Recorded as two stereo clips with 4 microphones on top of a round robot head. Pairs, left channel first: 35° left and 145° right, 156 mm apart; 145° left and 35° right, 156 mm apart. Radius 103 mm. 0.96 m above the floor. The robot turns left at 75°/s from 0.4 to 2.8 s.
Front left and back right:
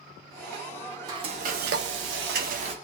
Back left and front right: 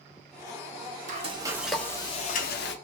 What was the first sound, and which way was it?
Frying, 75° right.